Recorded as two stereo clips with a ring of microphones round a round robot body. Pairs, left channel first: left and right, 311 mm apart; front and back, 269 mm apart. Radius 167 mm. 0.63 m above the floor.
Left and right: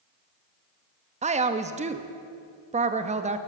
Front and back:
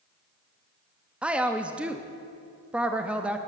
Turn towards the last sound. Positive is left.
turn(degrees=-100)